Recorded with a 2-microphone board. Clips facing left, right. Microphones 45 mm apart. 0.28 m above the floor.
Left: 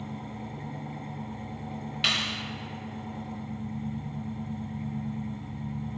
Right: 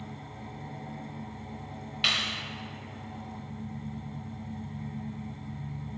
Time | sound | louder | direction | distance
0.0 | an engine running | left 4 dB | 40° left (ahead or behind) | 1.5 m
2.0 | a clap | even | centre (ahead or behind) | 0.7 m